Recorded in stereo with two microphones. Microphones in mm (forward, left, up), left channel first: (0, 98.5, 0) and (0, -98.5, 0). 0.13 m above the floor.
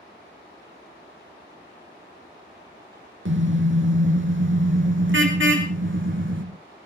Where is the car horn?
75° right (ahead or behind), 3 m; by 6.4 s 80° right, 4.5 m.